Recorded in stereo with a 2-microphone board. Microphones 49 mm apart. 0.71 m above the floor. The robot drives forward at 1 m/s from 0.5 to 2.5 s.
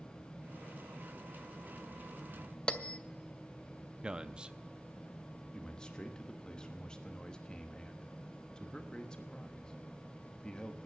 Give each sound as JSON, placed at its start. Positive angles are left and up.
{"t": 2.7, "sound": "a bell", "side_deg": 20, "distance_m": 0.7}
{"t": 4.0, "sound": "a man speaking", "side_deg": -20, "distance_m": 0.6}
{"t": 5.5, "sound": "a man speaking", "side_deg": 15, "distance_m": 1.1}